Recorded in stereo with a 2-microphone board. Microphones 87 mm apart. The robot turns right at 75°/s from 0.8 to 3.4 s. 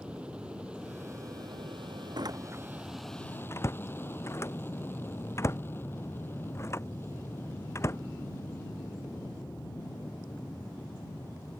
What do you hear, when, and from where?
0.0 s an aircraft: 165° right; by 11.6 s 30° left
2.2 s a door slam: 60° right (ahead or behind); by 8.0 s 35° left (ahead or behind)